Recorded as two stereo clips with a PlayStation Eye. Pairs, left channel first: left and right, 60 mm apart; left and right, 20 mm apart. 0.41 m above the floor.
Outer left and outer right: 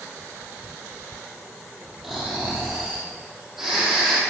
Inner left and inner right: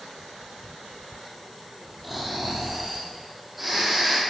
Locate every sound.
2.0 s snoring: 5° right (ahead or behind), 3.5 m